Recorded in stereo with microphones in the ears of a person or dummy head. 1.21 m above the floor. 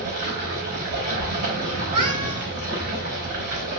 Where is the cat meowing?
35° right (ahead or behind), 1.8 m.